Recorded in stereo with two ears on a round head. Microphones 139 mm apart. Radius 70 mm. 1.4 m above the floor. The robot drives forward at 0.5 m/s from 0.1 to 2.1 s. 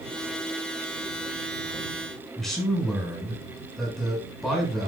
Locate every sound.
2.4 s a man speaking: centre (ahead or behind), 7 m